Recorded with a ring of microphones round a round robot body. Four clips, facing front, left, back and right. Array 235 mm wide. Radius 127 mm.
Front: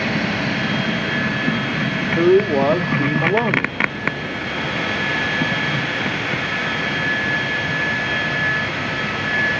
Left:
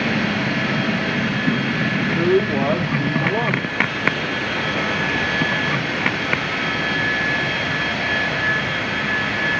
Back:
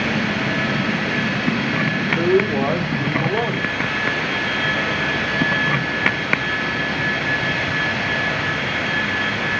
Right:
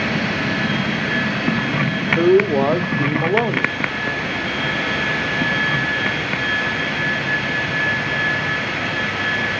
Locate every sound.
2.1 s a man speaking: 45° right, 1.0 m